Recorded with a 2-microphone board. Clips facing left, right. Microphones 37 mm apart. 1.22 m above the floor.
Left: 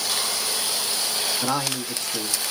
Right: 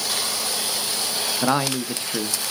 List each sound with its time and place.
1.4 s a man speaking: 35° right (ahead or behind), 1.0 m